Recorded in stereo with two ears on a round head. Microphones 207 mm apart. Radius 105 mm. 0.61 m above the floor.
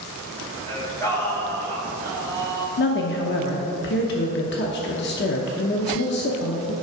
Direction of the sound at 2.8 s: 50° left (ahead or behind).